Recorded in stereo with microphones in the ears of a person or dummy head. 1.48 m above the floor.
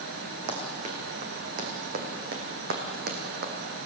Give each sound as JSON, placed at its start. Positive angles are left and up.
{"t": 0.5, "sound": "running footsteps", "side_deg": -40, "distance_m": 4.0}